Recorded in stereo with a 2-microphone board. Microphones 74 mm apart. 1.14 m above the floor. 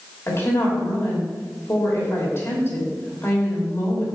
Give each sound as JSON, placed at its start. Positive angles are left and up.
{"t": 0.3, "sound": "a woman speaking", "side_deg": 35, "distance_m": 3.0}